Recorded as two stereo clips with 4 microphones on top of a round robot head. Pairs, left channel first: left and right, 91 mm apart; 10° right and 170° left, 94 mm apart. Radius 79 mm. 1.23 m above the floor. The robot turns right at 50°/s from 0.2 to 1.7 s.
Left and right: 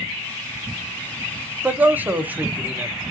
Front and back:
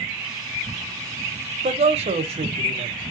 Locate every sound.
1.6 s a man speaking: 165° right, 0.7 m